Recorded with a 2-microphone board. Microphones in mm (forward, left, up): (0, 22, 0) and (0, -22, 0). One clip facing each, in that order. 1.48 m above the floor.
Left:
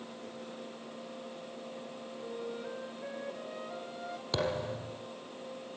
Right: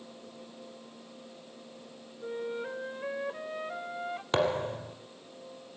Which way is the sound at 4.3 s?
45° right (ahead or behind).